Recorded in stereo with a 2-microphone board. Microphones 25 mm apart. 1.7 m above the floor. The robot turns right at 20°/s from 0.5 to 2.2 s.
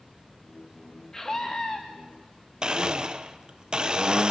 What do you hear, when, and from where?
1.1 s a scream: 20° left (ahead or behind), 2 m; by 1.8 s 35° left (ahead or behind), 2 m
2.6 s a blender: 35° right (ahead or behind), 1.3 m